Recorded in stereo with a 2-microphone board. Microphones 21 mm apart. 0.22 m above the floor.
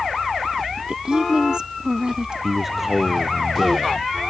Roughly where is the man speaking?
Centre.